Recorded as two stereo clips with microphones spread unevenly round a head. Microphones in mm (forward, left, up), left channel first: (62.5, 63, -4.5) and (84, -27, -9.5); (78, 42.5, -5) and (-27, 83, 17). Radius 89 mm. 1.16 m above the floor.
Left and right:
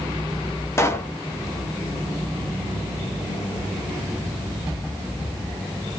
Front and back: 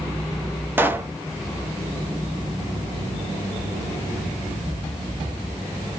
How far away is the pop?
About 0.7 m.